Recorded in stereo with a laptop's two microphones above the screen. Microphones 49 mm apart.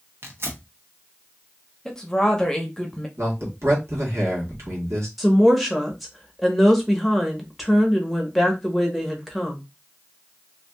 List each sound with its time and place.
0.2 s tearing paper: 55° right (ahead or behind), 0.9 m
1.9 s a woman speaking: 10° left (ahead or behind), 0.6 m
3.2 s a man speaking: 75° right (ahead or behind), 1.4 m
5.2 s a woman speaking: centre (ahead or behind), 1.1 m